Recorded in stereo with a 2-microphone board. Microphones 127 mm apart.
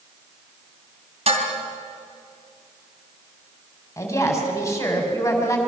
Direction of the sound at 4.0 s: 25° left (ahead or behind).